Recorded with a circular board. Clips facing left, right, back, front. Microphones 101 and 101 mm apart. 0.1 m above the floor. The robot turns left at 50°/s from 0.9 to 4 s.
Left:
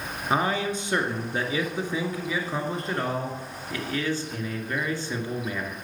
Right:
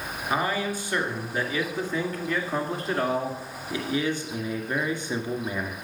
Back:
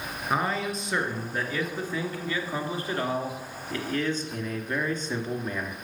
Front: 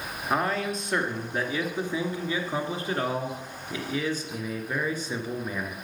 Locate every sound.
0.3 s a man speaking: 90° left, 1.6 m; by 5.8 s 65° right, 1.6 m